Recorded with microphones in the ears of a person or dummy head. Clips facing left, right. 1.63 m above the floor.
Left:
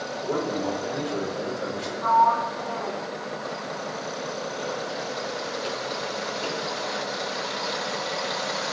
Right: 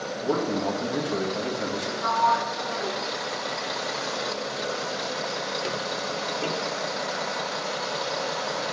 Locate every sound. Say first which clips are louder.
0.2 s a man speaking: right 1 dB; 55° right (ahead or behind), 2.5 m
2.0 s a sliding door: left 4 dB; 25° right (ahead or behind), 0.8 m